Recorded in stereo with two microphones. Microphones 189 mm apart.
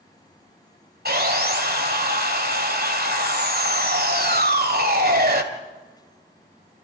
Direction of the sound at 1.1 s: 55° right (ahead or behind).